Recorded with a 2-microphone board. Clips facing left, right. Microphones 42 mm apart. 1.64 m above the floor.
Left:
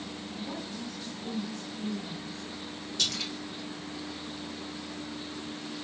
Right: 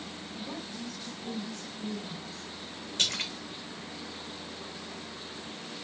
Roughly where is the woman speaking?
Centre.